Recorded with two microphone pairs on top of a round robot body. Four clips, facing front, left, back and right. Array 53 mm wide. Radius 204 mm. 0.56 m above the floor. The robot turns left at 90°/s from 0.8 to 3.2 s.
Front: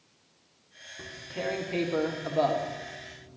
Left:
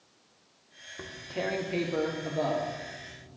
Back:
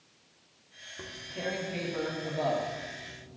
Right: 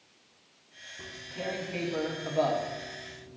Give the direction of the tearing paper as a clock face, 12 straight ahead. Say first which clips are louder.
Left 4 dB, front 2 dB; 9 o'clock.